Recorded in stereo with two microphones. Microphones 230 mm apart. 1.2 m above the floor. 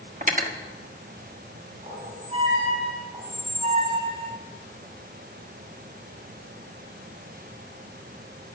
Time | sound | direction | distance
0.2 | cutlery clinking | 35° right (ahead or behind) | 1.2 m
1.8 | a squeak | 30° right (ahead or behind) | 6 m
3.1 | a squeak | 30° right (ahead or behind) | 2.5 m